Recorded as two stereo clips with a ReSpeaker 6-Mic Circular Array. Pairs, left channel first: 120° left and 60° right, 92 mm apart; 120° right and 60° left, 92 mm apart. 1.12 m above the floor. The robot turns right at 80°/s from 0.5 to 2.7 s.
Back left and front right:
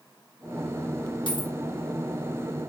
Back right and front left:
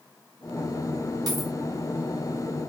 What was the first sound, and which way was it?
A dropped coin, 100° left.